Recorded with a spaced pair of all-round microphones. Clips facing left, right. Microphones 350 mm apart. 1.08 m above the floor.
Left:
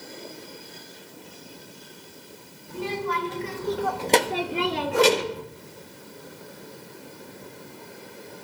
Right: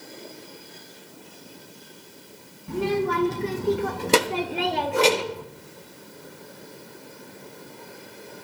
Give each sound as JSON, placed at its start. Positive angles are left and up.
{"t": 2.7, "sound": "a child speaking", "side_deg": -75, "distance_m": 1.5}
{"t": 4.9, "sound": "a whoosh", "side_deg": 70, "distance_m": 6.0}